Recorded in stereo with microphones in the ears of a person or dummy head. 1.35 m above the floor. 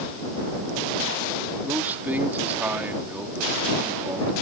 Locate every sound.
1.6 s a man speaking: 10° right (ahead or behind)